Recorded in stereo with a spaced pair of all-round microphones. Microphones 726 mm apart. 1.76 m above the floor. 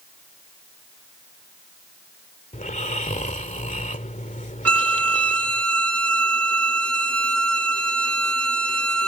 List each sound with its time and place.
2.5 s snoring: 10° left (ahead or behind)
4.7 s a violin: 25° right (ahead or behind)